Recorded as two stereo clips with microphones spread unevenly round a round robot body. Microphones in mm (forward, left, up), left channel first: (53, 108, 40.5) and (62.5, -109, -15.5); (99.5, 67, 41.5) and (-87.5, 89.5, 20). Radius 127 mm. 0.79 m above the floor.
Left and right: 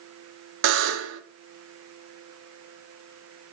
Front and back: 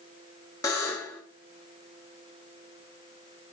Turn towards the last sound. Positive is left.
turn(degrees=-85)